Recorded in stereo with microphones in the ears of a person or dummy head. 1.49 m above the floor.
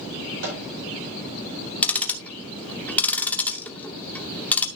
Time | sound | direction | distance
0.4 | a microwave | 65° right (ahead or behind) | 4.5 m
1.8 | ticking | centre (ahead or behind) | 0.8 m